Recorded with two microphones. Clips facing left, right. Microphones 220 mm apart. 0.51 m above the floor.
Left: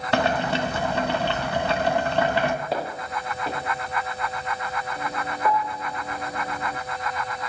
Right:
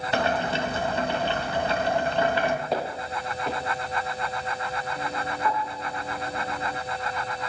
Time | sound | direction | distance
0.1 | boiling | 65° left (ahead or behind) | 1.6 m
2.7 | footsteps | centre (ahead or behind) | 4 m
5.4 | a piano | 50° left (ahead or behind) | 2 m